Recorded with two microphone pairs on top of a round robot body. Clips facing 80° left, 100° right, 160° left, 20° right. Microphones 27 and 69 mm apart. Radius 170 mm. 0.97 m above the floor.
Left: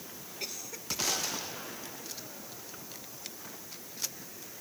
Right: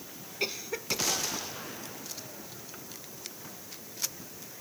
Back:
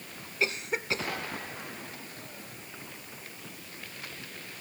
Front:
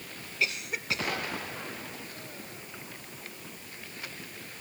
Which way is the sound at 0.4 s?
150° right.